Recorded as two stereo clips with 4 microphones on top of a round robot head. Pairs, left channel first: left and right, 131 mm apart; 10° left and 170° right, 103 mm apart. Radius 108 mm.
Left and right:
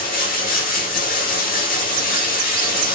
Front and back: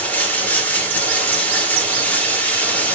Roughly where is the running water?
Left.